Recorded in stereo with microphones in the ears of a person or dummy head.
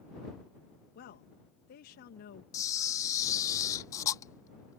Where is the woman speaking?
55° left (ahead or behind).